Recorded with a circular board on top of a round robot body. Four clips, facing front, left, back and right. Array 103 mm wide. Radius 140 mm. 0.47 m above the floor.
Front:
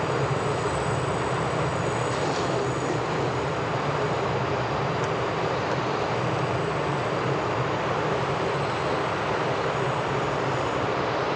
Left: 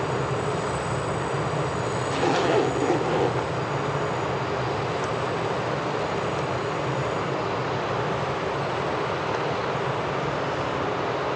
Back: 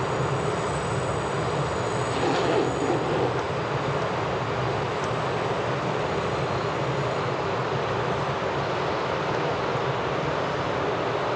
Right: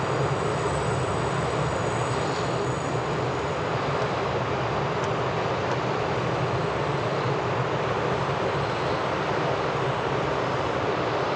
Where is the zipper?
110° left, 1.7 m.